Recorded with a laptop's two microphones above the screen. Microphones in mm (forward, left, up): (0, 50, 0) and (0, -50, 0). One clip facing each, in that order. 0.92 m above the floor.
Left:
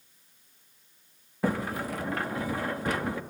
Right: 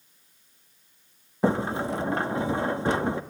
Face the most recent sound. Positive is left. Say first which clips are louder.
# right 5 dB
turn(degrees=-25)  # may be behind; listen again after turning